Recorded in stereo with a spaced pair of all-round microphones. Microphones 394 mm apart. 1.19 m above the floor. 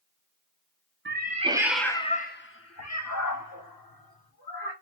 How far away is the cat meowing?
About 0.7 m.